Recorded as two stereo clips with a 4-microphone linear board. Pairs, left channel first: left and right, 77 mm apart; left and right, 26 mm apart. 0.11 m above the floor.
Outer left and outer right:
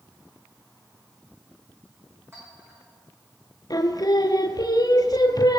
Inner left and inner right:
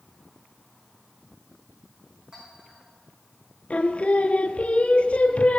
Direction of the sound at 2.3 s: 35° right (ahead or behind).